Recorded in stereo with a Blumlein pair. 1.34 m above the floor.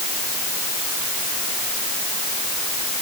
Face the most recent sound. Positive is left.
No sound to turn to.